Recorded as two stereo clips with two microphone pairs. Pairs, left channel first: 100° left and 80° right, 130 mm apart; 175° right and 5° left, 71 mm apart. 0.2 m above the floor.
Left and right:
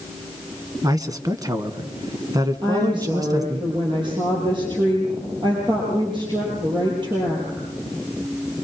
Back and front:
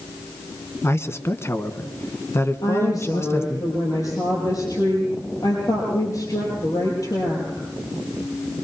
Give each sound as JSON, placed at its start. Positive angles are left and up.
{"t": 0.8, "sound": "a man speaking", "azimuth_deg": -135, "distance_m": 1.5}
{"t": 2.6, "sound": "a woman speaking", "azimuth_deg": -135, "distance_m": 5.5}